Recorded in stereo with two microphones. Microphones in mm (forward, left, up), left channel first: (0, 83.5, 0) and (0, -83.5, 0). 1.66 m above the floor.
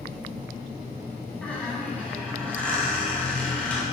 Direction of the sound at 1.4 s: 10° left (ahead or behind).